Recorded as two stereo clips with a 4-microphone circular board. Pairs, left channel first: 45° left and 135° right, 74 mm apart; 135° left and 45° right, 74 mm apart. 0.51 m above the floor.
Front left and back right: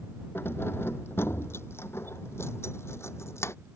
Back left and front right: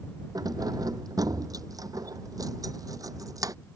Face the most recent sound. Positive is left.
turn(degrees=-5)